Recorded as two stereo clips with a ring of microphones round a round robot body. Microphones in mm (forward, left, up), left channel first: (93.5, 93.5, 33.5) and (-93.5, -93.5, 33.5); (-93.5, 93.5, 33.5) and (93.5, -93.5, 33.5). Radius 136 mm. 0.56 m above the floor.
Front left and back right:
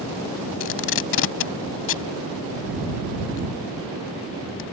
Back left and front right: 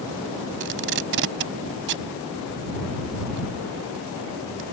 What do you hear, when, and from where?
0.6 s tape being pulled: 5° left